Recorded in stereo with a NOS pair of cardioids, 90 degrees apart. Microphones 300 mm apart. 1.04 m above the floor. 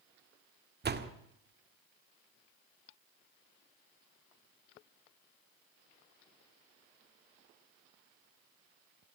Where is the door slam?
35° right, 1.7 m.